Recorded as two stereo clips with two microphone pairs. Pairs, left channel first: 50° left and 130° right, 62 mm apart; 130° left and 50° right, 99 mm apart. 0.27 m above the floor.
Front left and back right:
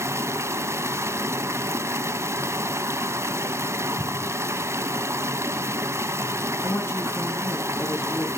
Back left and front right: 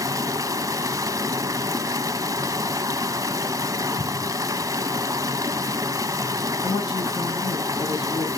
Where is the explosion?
110° left, 1.0 m.